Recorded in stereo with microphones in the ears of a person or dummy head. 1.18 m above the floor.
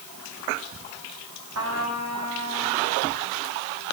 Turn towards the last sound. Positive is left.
turn(degrees=-85)